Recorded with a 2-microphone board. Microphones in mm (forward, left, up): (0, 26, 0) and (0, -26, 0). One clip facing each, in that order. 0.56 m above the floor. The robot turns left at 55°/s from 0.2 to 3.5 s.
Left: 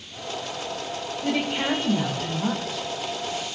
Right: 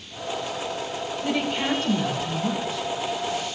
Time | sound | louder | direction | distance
1.2 | a woman speaking | left 1 dB | 170° left | 2.5 m